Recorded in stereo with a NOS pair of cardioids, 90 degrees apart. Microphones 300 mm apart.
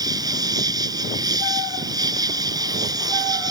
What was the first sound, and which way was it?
An insect, 10° right.